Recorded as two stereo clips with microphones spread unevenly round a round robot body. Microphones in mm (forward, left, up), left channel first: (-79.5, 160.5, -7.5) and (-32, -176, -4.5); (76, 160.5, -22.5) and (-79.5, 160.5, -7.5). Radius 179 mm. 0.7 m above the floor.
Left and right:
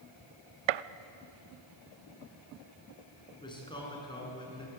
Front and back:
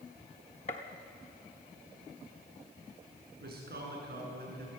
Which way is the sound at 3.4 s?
175° left.